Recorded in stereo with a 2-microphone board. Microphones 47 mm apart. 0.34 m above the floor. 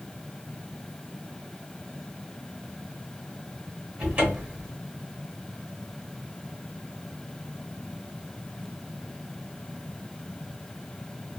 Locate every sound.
4.0 s a cupboard door: 25° right (ahead or behind), 1.1 m